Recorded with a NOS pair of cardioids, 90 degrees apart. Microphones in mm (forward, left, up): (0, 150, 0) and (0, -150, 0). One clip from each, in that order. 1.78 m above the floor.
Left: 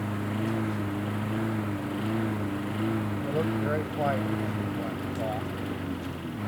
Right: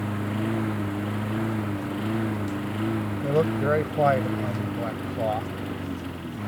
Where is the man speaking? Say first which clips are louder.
Right 7 dB; 45° right.